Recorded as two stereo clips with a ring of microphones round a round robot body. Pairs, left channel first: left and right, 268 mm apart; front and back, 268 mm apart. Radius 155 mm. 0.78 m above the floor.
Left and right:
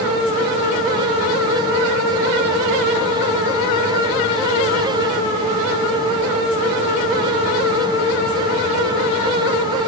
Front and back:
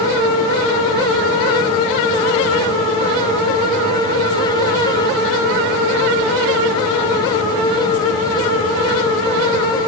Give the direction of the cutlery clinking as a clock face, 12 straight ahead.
No cutlery clinking in this recording.